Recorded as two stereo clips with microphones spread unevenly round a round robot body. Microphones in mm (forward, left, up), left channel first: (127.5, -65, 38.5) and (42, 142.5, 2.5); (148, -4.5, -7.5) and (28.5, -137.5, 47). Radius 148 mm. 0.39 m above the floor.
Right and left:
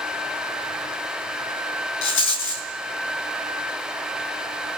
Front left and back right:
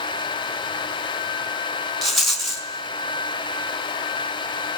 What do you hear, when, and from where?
2.0 s a rattle: 35° right, 5 m